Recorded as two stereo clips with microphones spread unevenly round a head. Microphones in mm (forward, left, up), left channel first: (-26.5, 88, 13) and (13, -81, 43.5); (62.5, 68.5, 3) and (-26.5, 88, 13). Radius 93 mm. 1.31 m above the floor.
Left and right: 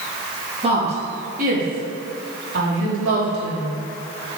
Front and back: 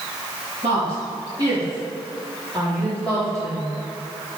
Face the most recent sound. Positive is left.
turn(degrees=-90)